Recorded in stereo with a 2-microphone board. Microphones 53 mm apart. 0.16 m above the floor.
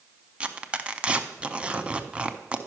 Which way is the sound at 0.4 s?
20° right (ahead or behind).